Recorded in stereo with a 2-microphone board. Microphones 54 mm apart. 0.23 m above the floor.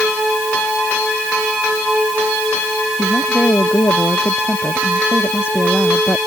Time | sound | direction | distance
3.0 | a woman speaking | 60° left (ahead or behind) | ?